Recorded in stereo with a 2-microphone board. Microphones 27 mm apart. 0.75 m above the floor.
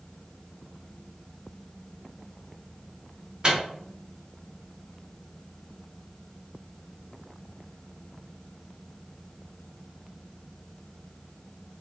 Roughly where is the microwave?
Right.